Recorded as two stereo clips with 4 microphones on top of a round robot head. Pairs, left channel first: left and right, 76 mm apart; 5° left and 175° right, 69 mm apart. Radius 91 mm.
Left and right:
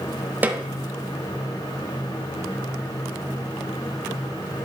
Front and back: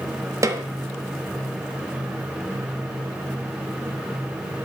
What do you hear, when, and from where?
0.4 s a snare drum: 150° right, 1.0 m